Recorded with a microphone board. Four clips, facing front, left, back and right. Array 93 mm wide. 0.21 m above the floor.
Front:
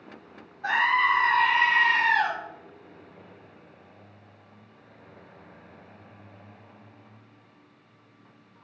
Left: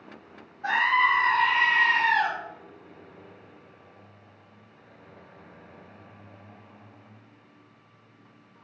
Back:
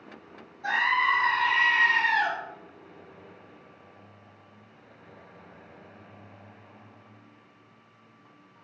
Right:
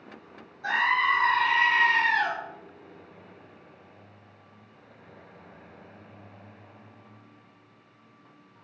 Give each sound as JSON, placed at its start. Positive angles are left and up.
{"t": 0.6, "sound": "a scream", "azimuth_deg": 50, "distance_m": 1.4}